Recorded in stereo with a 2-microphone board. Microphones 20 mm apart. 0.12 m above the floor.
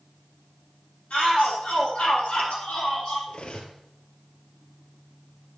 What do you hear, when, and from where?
1.1 s a shout: 75° left (ahead or behind), 6.5 m; by 3.2 s 60° left (ahead or behind), 5 m
3.3 s cutlery clinking: 55° left (ahead or behind), 1.5 m